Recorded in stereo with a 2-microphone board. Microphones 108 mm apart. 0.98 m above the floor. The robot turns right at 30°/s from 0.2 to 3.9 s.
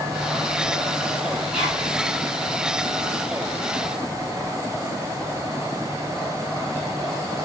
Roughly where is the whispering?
Centre.